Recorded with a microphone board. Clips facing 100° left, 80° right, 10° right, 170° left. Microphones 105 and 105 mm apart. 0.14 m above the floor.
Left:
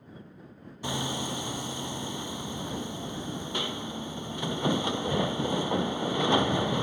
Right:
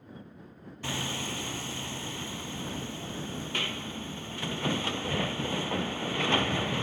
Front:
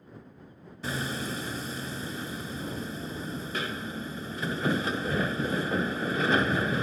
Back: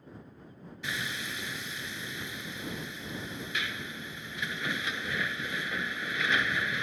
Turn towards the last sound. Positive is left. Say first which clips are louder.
# left 3 dB, front 5 dB
turn(degrees=30)